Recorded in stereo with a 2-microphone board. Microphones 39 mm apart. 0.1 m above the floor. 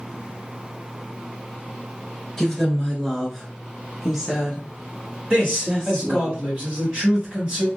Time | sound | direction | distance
2.4 | a woman speaking | 15° left (ahead or behind) | 1.3 m
5.3 | a man speaking | 20° right (ahead or behind) | 1.7 m